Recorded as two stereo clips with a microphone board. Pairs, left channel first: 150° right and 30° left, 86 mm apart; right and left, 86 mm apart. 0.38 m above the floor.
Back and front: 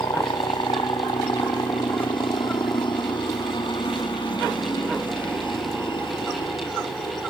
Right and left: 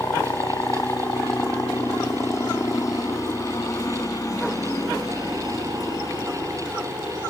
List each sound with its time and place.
0.0 s a helicopter: 140° right; by 7.3 s 135° right